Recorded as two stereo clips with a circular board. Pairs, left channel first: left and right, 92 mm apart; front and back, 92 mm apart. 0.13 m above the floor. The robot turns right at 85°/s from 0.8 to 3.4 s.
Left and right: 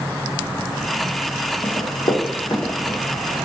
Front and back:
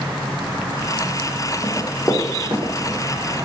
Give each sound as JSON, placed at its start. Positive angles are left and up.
{"t": 1.6, "sound": "running footsteps", "azimuth_deg": 45, "distance_m": 1.2}